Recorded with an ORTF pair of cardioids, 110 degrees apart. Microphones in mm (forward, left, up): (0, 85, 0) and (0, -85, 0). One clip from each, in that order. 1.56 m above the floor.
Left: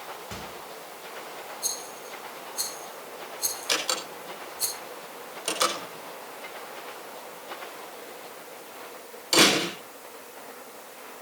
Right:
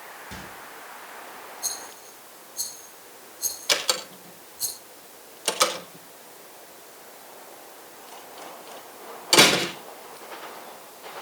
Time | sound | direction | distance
0.3 | a microwave | 15° left | 7.5 m
1.6 | a rattle | 5° left | 10 m
3.7 | a door slam | 25° right | 5.5 m